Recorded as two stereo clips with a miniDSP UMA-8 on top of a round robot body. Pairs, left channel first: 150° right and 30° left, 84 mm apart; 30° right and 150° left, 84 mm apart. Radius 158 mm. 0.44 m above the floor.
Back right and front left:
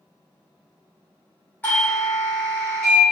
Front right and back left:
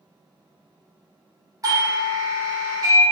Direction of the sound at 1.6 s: 155° left.